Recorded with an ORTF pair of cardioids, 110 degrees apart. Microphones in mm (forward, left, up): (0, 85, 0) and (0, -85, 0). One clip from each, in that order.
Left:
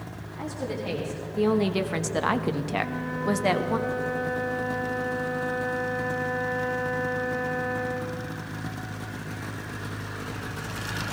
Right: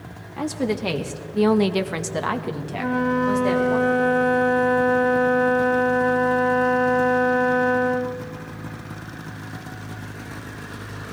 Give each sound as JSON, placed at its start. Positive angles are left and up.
{"t": 0.4, "sound": "a woman speaking", "azimuth_deg": -70, "distance_m": 1.3}
{"t": 2.8, "sound": "a flute", "azimuth_deg": -55, "distance_m": 0.6}